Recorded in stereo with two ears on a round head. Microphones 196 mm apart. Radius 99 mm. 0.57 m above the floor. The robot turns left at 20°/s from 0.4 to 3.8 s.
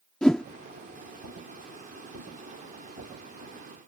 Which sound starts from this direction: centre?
A whoosh, at 0.2 s.